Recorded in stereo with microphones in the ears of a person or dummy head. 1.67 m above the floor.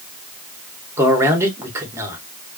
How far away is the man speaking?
About 1.3 m.